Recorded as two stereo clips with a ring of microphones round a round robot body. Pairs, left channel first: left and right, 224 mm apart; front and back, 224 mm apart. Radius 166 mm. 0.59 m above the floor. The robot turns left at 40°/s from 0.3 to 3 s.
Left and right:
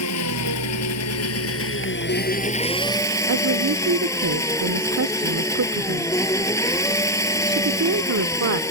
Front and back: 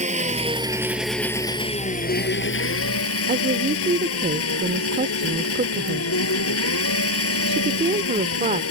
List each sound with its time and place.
0.0 s an engine running: 120° left; by 8.7 s 15° left
3.3 s a woman speaking: 115° right